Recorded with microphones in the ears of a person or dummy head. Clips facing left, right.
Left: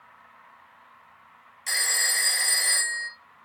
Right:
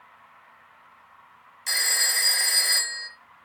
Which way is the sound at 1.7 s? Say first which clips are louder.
Even; centre (ahead or behind).